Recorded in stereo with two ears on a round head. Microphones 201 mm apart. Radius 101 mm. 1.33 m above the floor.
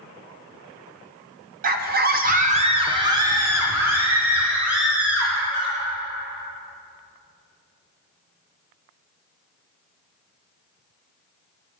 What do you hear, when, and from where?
1.6 s a scream: 40° right (ahead or behind), 0.6 m; by 5.8 s 5° right (ahead or behind), 3 m